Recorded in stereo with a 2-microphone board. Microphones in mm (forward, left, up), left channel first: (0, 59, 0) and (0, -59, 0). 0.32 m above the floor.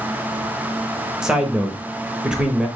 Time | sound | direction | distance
1.2 | a man speaking | 5° right (ahead or behind) | 0.9 m